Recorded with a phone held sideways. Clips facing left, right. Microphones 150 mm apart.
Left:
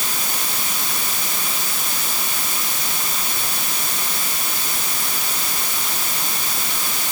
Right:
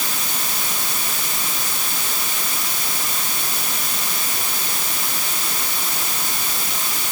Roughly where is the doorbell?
I don't hear a doorbell.